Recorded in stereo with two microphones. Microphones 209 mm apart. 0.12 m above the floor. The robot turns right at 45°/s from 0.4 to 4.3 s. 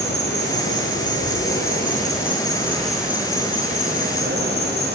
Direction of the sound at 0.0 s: 65° left.